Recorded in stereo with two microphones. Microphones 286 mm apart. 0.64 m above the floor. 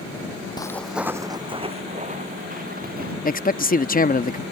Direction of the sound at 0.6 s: 15° left (ahead or behind).